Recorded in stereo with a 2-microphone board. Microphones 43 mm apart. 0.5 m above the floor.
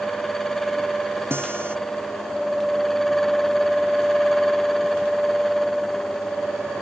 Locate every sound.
1.3 s a guitar: 65° right (ahead or behind)